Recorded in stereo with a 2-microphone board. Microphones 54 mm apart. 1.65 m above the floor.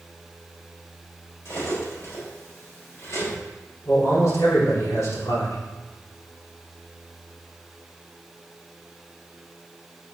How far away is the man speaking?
About 4.5 m.